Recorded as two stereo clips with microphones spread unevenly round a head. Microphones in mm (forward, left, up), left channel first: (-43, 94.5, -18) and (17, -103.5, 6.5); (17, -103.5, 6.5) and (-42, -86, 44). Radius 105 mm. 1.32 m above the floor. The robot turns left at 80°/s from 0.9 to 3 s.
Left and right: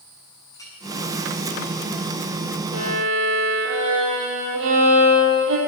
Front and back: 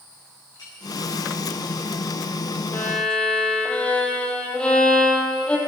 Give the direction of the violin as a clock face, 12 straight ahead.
3 o'clock.